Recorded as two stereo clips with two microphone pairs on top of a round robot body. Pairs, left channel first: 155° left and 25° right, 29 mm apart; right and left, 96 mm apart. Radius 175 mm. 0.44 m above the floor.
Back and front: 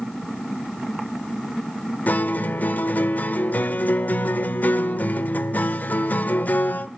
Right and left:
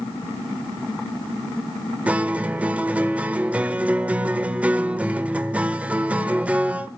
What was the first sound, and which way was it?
A guitar, 165° left.